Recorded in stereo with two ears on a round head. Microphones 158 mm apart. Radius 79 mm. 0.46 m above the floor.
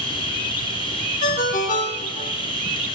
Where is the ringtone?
45° left (ahead or behind), 0.8 m.